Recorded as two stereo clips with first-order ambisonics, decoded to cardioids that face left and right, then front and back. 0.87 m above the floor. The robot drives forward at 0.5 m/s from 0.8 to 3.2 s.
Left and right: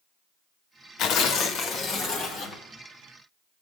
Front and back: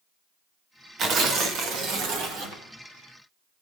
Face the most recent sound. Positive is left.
turn(degrees=160)